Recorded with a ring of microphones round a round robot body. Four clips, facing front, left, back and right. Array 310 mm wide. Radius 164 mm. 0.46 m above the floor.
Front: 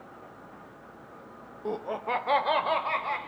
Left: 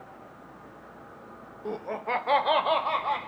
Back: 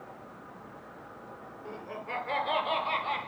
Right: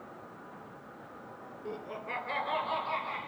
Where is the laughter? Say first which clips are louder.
Left 9 dB, front 9 dB; 30° left, 1.2 m; by 3.2 s 80° left, 2 m.